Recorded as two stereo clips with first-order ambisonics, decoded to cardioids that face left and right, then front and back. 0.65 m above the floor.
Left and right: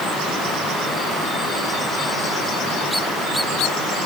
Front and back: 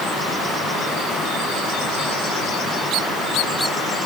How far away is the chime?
I don't hear a chime.